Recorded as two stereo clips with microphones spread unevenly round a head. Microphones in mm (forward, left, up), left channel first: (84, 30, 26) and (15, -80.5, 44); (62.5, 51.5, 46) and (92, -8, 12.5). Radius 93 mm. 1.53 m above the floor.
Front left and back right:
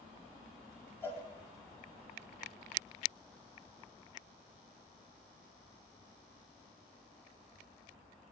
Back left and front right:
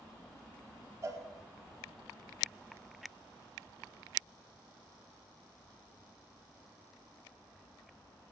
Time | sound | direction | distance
1.0 | a cowbell | 15° right | 4.5 m